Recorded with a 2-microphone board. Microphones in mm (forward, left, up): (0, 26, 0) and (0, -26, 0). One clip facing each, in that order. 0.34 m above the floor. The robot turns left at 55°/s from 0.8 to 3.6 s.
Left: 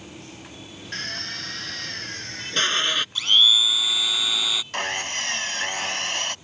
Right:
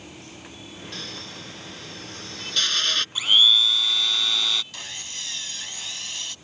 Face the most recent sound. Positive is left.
turn(degrees=60)  # may be behind; listen again after turning